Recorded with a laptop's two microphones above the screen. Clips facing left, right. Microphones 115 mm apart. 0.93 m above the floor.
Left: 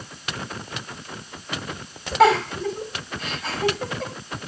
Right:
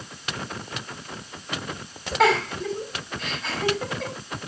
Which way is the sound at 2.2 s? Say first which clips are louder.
Left 4 dB; 5° left (ahead or behind).